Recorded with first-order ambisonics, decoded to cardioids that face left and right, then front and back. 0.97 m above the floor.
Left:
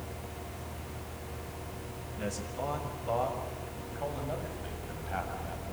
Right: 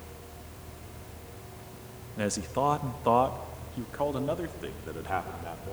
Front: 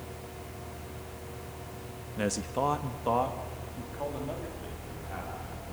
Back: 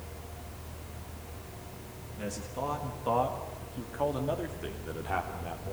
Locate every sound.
2.2 s a man speaking: 45° right, 1.8 m; by 5.7 s 125° right, 4 m